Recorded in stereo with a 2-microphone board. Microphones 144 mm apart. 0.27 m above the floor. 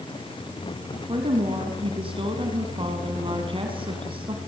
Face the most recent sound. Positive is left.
turn(degrees=-40)  # may be behind; listen again after turning